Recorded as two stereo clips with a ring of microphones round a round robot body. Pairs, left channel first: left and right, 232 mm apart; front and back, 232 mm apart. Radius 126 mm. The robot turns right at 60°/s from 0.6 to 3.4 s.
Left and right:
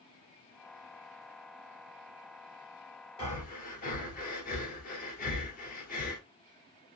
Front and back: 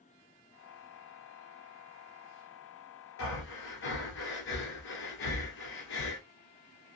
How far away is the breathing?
About 1.4 m.